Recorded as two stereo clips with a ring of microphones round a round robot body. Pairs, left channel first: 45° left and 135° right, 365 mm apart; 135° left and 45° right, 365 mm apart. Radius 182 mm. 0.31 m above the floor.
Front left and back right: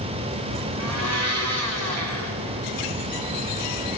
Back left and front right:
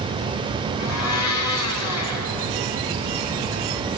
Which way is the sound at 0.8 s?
Straight behind.